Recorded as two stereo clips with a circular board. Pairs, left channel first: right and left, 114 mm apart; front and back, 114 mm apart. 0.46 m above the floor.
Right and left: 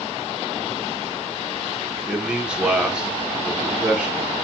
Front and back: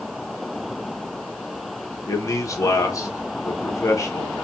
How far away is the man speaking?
About 0.8 m.